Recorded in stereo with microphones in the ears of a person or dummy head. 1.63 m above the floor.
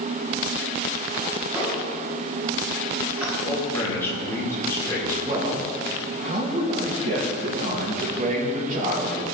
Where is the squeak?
10° right (ahead or behind), 4 m.